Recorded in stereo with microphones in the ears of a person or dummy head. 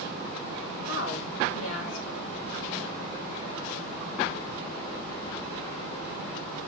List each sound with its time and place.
0.8 s a woman speaking: 80° left, 2 m